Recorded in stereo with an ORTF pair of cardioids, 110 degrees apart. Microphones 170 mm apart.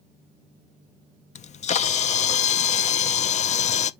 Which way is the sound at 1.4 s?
45° left.